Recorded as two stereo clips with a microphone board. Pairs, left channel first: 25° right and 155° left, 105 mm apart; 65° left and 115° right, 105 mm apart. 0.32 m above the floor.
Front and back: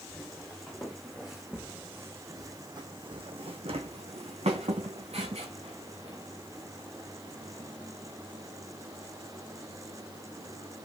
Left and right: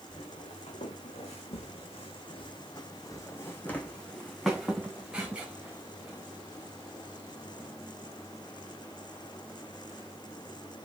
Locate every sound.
0.1 s footsteps: 55° left, 1.7 m; by 7.7 s 175° right, 3 m